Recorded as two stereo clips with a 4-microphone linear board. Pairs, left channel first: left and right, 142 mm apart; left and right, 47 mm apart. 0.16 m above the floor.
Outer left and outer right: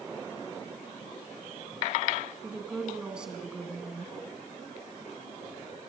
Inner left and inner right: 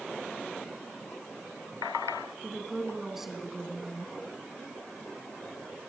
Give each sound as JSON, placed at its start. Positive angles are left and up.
{"t": 2.4, "sound": "a woman speaking", "side_deg": -5, "distance_m": 1.6}